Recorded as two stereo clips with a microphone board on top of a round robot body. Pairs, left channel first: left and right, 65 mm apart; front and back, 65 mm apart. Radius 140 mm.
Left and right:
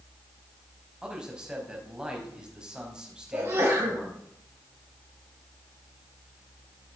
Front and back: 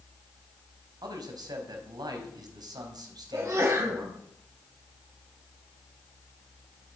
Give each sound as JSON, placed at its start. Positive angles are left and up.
{"t": 1.0, "sound": "a man speaking", "azimuth_deg": -170, "distance_m": 4.0}
{"t": 3.3, "sound": "a sneeze", "azimuth_deg": -145, "distance_m": 5.5}